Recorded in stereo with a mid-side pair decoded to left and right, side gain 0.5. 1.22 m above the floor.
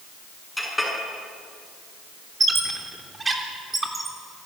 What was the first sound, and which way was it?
A clink, 5° left.